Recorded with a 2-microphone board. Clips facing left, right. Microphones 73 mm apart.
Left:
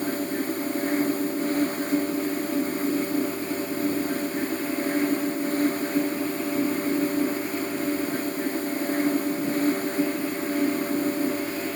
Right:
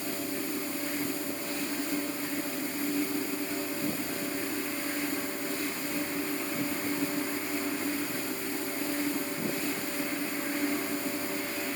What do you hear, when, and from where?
Only background noise.